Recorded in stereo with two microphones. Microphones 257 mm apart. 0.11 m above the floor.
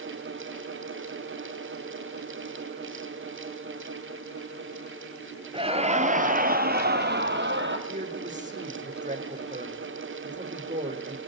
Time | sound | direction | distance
5.5 | laughter | 20° right (ahead or behind) | 2.0 m
7.9 | a man speaking | 30° right (ahead or behind) | 6 m